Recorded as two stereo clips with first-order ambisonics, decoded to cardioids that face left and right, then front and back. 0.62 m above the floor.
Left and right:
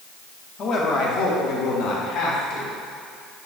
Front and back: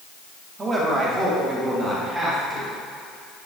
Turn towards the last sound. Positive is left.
turn(degrees=100)